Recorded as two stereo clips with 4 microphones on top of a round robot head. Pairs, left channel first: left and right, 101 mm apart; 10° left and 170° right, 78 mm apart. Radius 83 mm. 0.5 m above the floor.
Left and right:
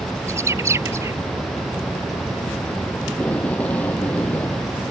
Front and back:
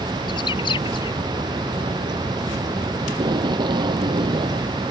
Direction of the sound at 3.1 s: 170° left.